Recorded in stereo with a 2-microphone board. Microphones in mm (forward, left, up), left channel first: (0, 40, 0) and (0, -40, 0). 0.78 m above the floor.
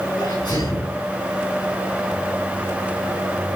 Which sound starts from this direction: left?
A sneeze, at 0.2 s.